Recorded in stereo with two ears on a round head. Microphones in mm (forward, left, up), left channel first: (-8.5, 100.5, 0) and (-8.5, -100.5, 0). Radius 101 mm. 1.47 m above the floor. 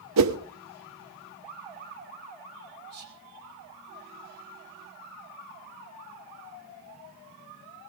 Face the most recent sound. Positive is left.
turn(degrees=-45)  # may be behind; listen again after turning